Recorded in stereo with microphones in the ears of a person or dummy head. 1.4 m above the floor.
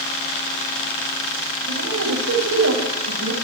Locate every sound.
1.7 s a man speaking: 85° right, 7 m